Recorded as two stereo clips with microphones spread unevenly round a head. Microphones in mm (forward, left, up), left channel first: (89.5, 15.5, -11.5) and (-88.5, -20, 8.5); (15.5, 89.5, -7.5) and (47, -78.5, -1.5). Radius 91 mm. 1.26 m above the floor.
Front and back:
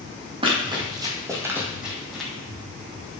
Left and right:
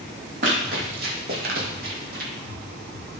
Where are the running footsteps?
115° right, 2.5 m; by 2.3 s 75° right, 2.0 m.